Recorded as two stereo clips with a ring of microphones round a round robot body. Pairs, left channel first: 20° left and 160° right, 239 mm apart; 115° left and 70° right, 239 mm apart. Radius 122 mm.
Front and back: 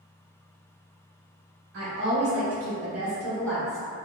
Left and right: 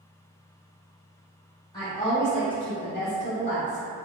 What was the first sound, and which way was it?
A woman speaking, 175° left.